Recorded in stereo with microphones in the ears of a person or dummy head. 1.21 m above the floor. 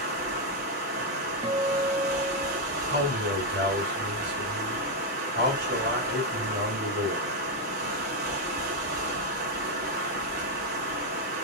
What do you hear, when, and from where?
0.0 s running water: 45° right (ahead or behind), 1.6 m
1.4 s a guitar: 25° right (ahead or behind), 0.9 m
2.9 s a man speaking: 45° right (ahead or behind), 2.5 m